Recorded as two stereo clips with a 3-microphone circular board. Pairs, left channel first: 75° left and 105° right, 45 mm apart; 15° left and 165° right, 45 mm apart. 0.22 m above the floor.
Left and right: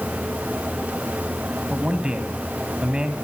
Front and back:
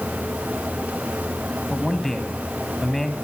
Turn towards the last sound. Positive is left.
turn(degrees=-55)